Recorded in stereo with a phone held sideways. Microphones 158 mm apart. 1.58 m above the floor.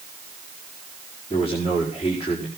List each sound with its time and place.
1.3 s a man speaking: 40° left (ahead or behind), 5.5 m